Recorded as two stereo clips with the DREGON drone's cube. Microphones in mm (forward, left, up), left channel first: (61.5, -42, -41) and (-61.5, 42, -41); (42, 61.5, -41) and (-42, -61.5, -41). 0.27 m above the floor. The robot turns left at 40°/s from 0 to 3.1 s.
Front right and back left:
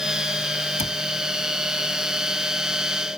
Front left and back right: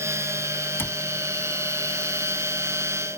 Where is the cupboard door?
15° right; by 1.0 s 25° right.